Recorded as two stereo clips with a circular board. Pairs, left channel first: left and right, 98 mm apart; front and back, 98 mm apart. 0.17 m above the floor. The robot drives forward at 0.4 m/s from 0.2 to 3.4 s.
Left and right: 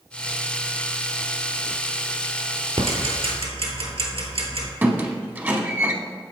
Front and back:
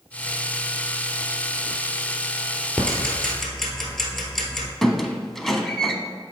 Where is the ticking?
75° right, 1.4 m; by 4.7 s 85° right, 1.4 m.